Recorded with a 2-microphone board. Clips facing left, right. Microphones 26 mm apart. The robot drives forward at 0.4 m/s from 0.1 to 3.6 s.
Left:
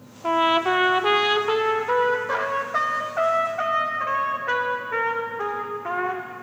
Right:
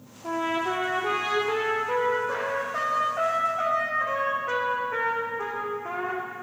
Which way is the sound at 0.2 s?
70° left (ahead or behind).